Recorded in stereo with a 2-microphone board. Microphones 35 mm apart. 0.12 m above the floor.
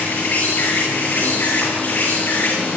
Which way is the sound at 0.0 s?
60° left (ahead or behind).